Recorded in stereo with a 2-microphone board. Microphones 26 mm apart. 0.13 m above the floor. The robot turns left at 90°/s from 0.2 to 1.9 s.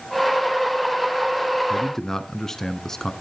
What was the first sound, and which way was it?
A man speaking, 20° left (ahead or behind).